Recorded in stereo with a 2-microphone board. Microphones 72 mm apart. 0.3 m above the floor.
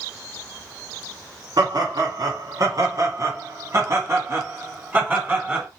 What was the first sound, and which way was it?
Laughter, 65° right (ahead or behind).